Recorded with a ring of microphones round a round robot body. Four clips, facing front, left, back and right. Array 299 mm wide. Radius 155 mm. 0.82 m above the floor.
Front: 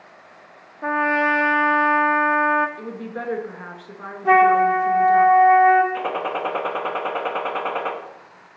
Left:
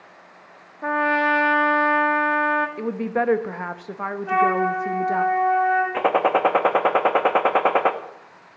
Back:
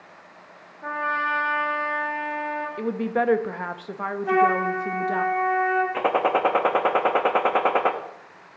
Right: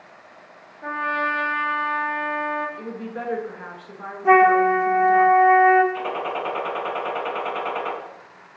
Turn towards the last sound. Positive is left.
turn(degrees=110)